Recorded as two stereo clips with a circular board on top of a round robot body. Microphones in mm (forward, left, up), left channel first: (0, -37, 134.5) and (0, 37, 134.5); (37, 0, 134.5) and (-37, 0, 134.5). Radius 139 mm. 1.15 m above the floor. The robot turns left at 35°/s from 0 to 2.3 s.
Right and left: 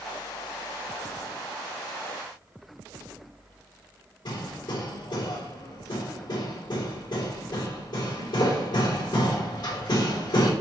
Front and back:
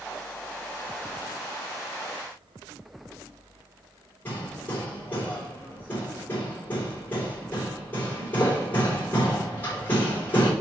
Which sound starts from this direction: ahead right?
Hammering, at 4.2 s.